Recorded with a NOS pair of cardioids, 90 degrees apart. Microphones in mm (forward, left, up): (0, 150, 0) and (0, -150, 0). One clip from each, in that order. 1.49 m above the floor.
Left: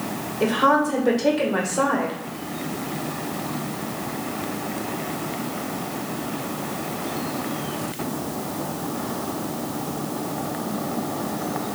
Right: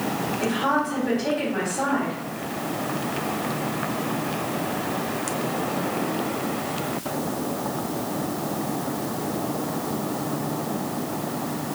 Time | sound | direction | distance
0.4 | a woman speaking | 60° left | 1.7 m